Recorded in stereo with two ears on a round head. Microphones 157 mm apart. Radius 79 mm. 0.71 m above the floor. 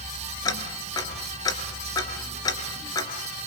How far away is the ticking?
About 2.5 m.